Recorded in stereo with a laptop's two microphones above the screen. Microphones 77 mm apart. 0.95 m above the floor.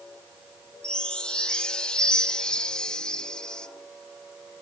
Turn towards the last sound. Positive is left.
turn(degrees=10)  # may be behind; listen again after turning